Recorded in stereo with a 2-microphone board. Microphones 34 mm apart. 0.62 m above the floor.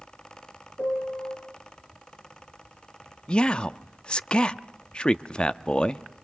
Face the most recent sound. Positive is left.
turn(degrees=25)  # may be behind; listen again after turning